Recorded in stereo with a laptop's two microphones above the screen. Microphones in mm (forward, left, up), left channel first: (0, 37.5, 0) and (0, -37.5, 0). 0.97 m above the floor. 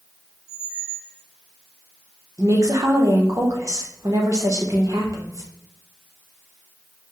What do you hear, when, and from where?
0.5 s a squeak: 5° right (ahead or behind), 1.9 m
2.4 s a woman speaking: 45° right (ahead or behind), 1.1 m